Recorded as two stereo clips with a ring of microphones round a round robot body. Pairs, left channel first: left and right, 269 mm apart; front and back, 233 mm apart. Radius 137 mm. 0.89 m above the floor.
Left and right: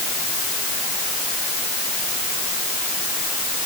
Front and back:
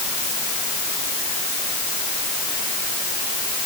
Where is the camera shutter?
I don't hear a camera shutter.